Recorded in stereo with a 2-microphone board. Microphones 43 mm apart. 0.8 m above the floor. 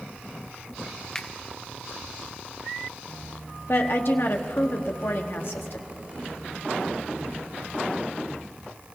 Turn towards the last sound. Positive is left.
turn(degrees=60)  # may be behind; listen again after turning